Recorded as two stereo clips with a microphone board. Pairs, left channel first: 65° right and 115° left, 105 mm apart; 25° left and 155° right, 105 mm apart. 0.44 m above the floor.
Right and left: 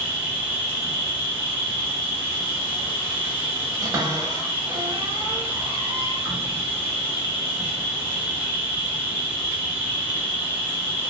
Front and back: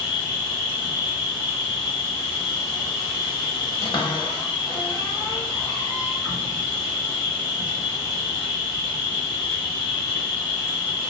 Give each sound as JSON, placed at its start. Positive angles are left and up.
{"t": 0.0, "sound": "an insect", "azimuth_deg": 110, "distance_m": 1.2}
{"t": 3.8, "sound": "a cupboard door", "azimuth_deg": 65, "distance_m": 0.8}